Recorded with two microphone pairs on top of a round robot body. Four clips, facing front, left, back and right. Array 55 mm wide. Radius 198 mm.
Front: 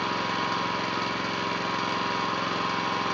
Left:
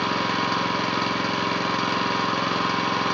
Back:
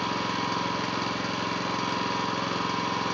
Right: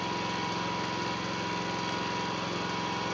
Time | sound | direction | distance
0.0 | an engine running | 80° left | 3.5 m